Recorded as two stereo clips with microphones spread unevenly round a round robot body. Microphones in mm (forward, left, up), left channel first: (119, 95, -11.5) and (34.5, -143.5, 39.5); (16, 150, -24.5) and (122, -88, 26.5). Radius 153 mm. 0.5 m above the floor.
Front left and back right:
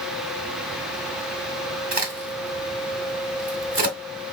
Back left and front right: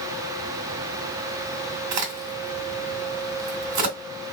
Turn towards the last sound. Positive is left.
turn(degrees=-50)